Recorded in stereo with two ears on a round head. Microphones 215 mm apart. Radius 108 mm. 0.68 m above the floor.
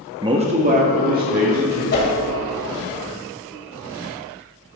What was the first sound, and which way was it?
A man speaking, 15° right (ahead or behind).